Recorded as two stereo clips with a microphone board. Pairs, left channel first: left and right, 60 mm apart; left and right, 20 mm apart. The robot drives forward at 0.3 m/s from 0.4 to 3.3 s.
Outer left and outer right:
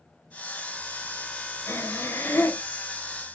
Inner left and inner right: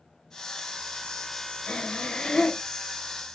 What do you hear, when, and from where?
1.7 s breathing: 50° left (ahead or behind), 0.7 m; by 2.6 s 35° left (ahead or behind), 0.9 m